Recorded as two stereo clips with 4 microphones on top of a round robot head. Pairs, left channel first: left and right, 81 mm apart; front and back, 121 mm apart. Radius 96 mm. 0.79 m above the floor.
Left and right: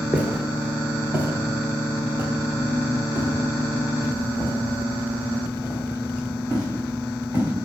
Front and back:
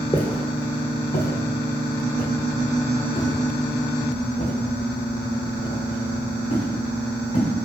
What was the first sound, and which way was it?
Footsteps, 30° right.